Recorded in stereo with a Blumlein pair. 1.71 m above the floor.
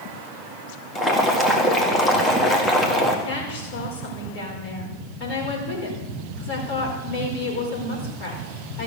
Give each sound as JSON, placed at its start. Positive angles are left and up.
{"t": 0.9, "sound": "boiling", "azimuth_deg": 10, "distance_m": 1.7}
{"t": 3.2, "sound": "a woman speaking", "azimuth_deg": 45, "distance_m": 5.0}